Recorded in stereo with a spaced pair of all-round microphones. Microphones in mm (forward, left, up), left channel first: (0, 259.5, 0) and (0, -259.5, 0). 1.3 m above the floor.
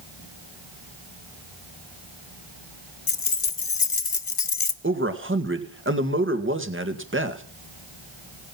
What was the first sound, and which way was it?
Keys jangling, 75° left (ahead or behind).